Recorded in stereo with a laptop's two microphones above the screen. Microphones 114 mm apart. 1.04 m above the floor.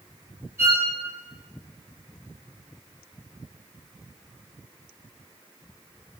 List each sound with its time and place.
0.6 s a violin: 20° right (ahead or behind), 3 m